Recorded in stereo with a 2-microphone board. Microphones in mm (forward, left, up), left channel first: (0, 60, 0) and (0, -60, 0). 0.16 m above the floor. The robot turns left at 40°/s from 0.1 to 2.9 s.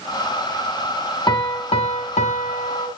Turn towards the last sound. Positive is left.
turn(degrees=75)